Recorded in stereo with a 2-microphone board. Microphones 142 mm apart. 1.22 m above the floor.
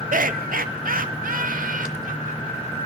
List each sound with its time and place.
0.1 s laughter: 75° right (ahead or behind), 0.6 m; by 2.6 s 70° right (ahead or behind), 1.7 m